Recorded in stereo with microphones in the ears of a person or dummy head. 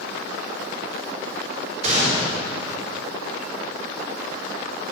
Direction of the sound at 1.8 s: 30° right (ahead or behind).